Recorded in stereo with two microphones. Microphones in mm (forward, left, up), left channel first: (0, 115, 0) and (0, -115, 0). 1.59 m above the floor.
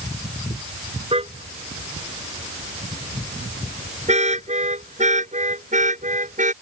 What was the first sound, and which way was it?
A car horn, 25° right (ahead or behind).